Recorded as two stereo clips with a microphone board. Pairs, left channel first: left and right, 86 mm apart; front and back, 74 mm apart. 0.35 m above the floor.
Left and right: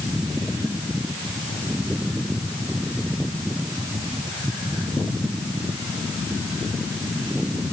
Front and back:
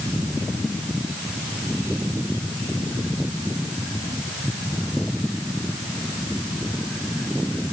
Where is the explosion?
No explosion in this recording.